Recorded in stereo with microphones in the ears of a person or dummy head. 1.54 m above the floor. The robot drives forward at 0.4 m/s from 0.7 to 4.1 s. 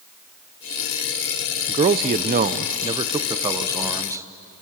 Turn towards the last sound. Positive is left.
turn(degrees=-15)  # may be behind; listen again after turning